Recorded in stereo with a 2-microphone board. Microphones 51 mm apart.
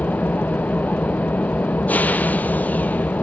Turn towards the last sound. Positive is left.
turn(degrees=35)  # may be behind; listen again after turning